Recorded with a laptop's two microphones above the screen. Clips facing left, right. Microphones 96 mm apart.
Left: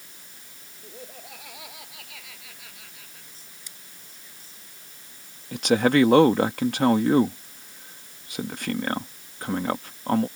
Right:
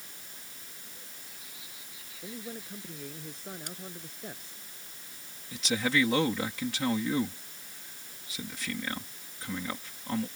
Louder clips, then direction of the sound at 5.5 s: Left 10 dB; 60° left (ahead or behind).